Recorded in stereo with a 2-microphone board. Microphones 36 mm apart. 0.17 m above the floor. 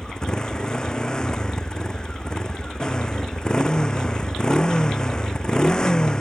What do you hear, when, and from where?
0.0 s a motorcycle: 25° left (ahead or behind)